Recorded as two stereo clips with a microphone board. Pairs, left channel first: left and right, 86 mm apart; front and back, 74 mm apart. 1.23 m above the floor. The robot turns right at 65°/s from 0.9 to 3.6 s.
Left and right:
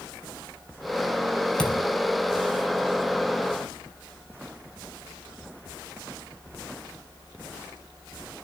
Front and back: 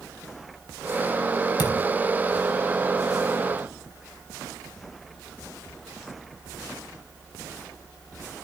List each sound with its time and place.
1.6 s a thud: 10° left, 2.5 m; by 1.9 s 25° left, 2.5 m